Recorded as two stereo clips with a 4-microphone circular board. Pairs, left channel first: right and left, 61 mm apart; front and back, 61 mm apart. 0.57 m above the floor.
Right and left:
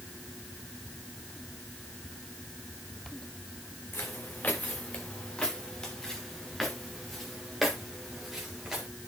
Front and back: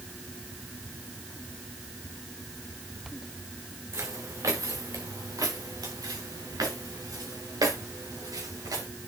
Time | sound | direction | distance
3.9 | footsteps | 145° right | 2 m